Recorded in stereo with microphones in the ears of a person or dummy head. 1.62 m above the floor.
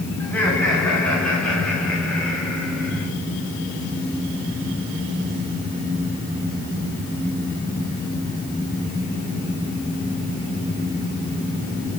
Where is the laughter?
10° left (ahead or behind), 4 m; by 3.1 s 5° left (ahead or behind), 6.5 m.